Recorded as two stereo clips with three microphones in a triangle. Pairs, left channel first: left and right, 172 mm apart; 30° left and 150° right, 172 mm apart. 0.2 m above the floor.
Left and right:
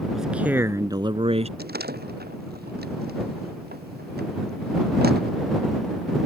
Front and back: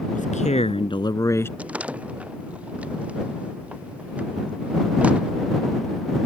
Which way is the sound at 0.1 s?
Straight ahead.